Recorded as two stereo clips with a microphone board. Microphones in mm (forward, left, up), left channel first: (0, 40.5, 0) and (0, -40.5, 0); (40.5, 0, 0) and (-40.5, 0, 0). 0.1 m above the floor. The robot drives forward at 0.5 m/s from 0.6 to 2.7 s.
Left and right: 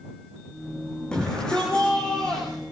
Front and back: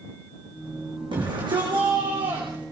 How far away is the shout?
About 5 m.